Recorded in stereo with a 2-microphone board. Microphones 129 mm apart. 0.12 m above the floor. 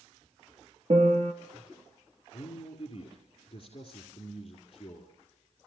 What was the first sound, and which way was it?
A piano, 60° right (ahead or behind).